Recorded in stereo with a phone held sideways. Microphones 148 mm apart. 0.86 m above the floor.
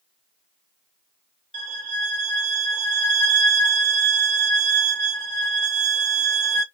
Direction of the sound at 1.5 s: 35° left (ahead or behind).